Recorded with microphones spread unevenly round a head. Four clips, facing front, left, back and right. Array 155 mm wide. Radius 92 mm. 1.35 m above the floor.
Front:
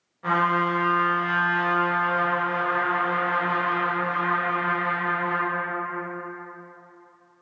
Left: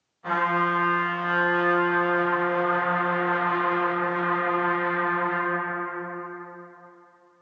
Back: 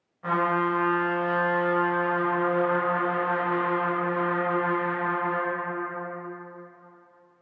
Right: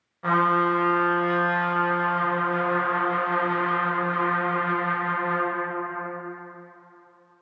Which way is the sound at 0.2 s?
70° right.